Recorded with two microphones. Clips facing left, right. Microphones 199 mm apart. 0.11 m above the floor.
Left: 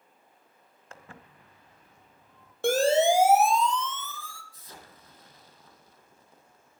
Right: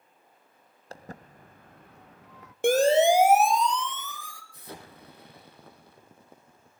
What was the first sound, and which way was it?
Footsteps, 35° right (ahead or behind).